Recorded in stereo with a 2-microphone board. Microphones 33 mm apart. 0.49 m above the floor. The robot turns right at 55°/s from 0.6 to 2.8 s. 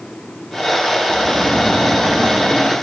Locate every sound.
1.1 s snoring: 115° left, 6 m; by 2.7 s 155° right, 6 m